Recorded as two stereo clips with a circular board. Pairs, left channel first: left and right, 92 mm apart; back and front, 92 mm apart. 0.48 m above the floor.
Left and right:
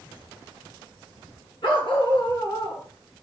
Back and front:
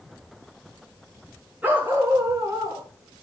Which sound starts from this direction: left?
A dog barking, at 1.6 s.